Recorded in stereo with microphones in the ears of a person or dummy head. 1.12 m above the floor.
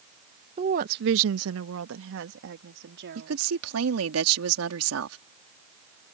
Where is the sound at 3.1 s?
80° right.